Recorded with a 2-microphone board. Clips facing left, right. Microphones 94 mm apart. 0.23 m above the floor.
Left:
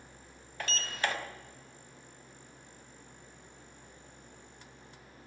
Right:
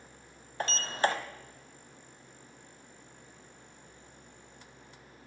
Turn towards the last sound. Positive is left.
turn(degrees=-35)  # may be behind; listen again after turning